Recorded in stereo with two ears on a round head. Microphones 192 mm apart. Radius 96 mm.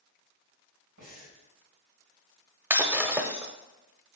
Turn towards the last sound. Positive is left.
turn(degrees=-10)  # may be behind; listen again after turning